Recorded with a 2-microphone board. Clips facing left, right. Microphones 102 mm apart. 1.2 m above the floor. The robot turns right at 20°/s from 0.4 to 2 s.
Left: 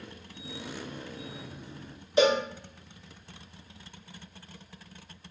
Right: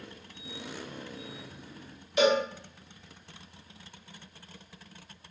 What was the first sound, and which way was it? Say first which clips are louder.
A cowbell: left 1 dB; 30° left (ahead or behind).